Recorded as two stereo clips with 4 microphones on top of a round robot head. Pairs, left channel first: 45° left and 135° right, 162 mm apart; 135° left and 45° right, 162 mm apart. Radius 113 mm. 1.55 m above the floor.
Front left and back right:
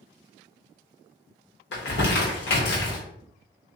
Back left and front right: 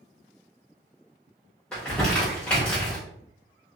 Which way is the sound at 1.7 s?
50° left.